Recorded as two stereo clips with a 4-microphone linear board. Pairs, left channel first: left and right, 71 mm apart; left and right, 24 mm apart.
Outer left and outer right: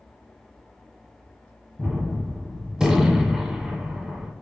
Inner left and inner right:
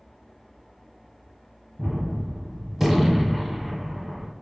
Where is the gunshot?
10° right (ahead or behind), 0.6 m.